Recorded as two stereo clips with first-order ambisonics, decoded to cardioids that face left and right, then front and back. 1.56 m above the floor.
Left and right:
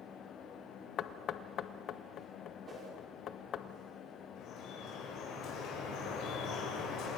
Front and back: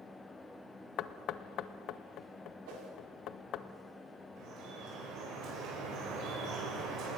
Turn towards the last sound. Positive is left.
turn(degrees=135)